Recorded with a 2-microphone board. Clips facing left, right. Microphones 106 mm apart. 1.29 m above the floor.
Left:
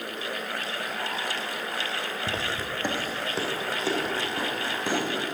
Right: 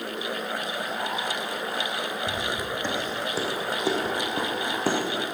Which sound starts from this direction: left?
Footsteps, at 2.3 s.